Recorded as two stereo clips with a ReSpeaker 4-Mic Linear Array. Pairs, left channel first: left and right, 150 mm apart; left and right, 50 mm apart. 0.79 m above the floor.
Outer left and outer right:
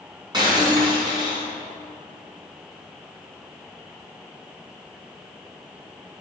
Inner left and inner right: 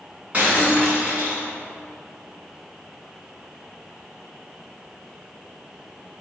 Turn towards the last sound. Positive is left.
turn(degrees=-30)  # may be behind; listen again after turning